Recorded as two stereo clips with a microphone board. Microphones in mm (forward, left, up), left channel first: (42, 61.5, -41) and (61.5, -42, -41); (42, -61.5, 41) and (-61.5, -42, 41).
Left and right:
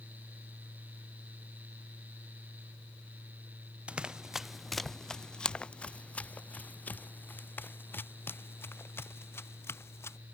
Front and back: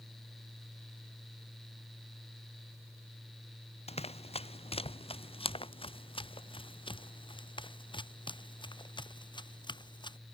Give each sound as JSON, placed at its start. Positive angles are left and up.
{"t": 3.9, "sound": "running footsteps", "azimuth_deg": 0}